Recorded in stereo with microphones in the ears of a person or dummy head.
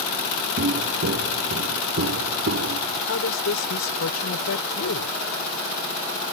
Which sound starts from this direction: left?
A woman speaking, at 3.1 s.